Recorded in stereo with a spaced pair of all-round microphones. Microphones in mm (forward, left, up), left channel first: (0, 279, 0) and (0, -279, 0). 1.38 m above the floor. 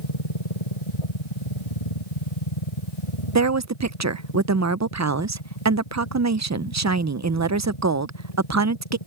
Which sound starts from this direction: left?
A machine running, at 0.0 s.